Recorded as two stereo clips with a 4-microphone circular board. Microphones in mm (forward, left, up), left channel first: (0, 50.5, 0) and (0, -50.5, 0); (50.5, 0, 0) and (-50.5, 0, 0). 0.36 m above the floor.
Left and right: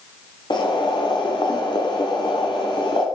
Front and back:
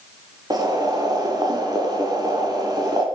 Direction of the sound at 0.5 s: 130° left.